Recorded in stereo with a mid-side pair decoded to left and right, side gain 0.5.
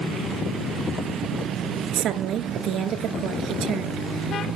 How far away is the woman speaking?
About 2 m.